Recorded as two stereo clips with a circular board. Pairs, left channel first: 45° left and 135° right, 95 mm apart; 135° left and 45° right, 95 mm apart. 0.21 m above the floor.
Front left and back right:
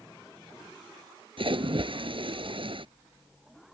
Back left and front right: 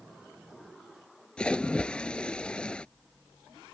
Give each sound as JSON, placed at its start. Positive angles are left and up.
{"t": 1.4, "sound": "a splash", "azimuth_deg": -145}